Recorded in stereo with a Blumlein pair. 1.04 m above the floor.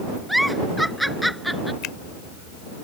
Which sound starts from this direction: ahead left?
A finger snap, at 1.8 s.